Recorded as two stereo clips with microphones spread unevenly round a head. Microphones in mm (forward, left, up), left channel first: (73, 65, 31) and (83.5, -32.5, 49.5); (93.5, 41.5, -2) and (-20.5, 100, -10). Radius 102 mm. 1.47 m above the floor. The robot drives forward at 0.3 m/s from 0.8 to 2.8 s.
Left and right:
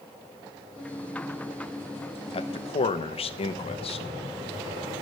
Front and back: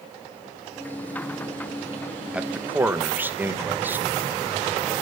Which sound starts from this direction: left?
A man speaking, at 2.3 s.